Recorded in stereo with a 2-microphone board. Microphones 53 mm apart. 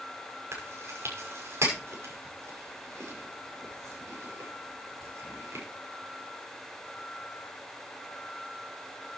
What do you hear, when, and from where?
0.5 s chewing: 60° right (ahead or behind), 6 m